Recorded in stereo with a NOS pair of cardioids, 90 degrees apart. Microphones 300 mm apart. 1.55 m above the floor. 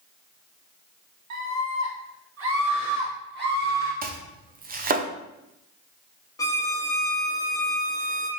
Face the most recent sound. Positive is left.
turn(degrees=10)